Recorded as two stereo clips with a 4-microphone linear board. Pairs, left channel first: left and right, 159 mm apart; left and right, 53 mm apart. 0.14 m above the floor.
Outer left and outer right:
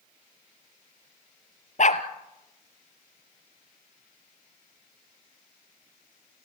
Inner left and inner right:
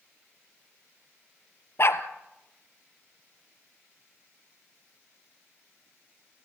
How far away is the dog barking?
About 1.5 m.